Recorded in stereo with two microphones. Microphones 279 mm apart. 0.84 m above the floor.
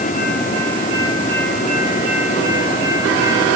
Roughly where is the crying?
No crying in this recording.